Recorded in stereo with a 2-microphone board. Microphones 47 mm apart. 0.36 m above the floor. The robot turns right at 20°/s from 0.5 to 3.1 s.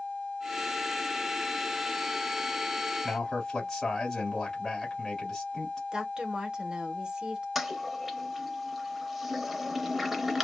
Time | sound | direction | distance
3.0 | a man speaking | 5° left (ahead or behind) | 1.6 m
5.9 | a woman speaking | 20° right (ahead or behind) | 0.8 m
7.5 | a toilet flushing | centre (ahead or behind) | 0.5 m